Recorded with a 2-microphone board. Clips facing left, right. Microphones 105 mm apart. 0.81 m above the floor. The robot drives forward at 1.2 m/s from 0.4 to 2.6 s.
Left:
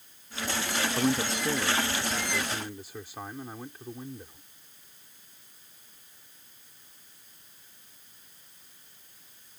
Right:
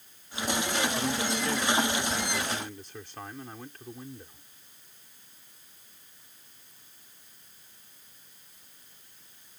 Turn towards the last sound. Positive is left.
turn(degrees=10)  # may be behind; listen again after turning